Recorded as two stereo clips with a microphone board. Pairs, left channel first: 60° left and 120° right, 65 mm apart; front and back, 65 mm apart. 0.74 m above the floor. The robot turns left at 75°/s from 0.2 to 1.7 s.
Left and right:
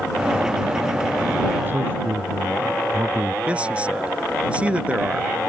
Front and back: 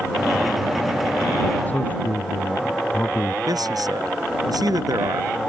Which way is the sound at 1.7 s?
60° right.